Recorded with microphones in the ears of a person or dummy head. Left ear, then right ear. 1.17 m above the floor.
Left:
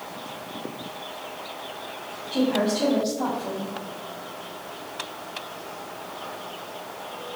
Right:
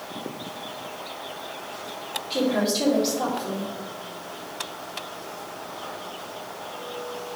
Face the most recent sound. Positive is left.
turn(degrees=-25)  # may be behind; listen again after turning